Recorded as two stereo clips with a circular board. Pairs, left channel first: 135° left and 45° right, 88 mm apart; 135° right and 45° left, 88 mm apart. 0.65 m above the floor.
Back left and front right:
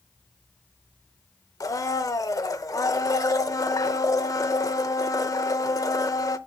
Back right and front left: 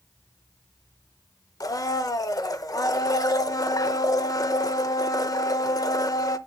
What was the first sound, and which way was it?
A blender, straight behind.